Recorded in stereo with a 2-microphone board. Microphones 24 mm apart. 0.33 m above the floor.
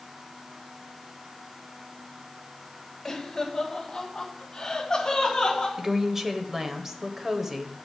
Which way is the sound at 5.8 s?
20° right (ahead or behind).